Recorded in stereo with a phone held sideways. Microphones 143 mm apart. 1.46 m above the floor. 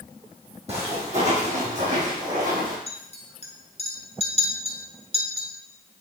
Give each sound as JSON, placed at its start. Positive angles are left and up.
{"t": 0.7, "sound": "footsteps", "side_deg": -45, "distance_m": 3.0}
{"t": 2.9, "sound": "a clink", "side_deg": 45, "distance_m": 1.1}